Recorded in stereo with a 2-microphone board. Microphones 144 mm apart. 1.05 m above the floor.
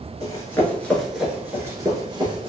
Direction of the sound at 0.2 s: 25° left (ahead or behind).